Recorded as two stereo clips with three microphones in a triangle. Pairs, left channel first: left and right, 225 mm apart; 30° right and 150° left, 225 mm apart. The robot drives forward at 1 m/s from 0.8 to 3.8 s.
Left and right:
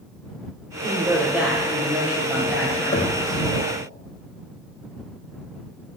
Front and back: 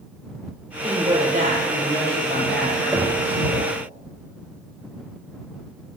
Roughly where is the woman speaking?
Behind.